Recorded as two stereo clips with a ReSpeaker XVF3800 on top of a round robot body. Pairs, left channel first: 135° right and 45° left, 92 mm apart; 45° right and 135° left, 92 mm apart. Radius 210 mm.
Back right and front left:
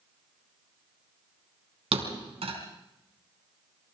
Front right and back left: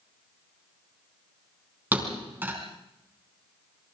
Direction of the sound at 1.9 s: 60° left.